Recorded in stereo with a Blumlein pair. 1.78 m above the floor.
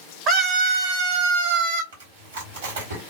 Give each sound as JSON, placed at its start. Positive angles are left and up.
{"t": 0.3, "sound": "a scream", "azimuth_deg": -35, "distance_m": 0.7}
{"t": 1.9, "sound": "chewing", "azimuth_deg": -60, "distance_m": 1.5}